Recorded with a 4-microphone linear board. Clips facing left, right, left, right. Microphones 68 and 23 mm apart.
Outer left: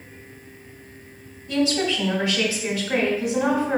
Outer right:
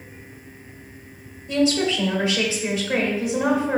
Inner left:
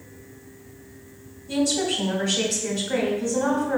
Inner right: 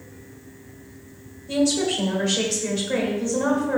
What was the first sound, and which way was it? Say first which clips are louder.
A woman speaking: outer right 2 dB, inner right 2 dB; 25° right (ahead or behind).